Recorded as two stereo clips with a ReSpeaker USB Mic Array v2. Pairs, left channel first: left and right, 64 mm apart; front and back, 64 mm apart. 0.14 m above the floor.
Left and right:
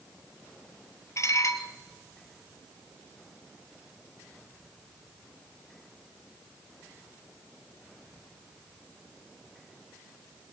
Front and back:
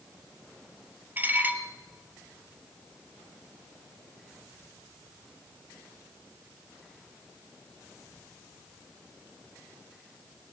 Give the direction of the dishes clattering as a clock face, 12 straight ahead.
8 o'clock.